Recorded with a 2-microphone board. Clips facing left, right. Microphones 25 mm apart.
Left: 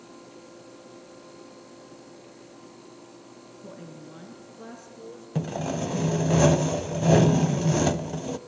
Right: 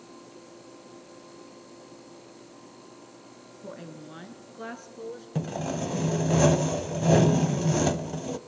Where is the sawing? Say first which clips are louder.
Left 2 dB; 5° left (ahead or behind), 0.7 m.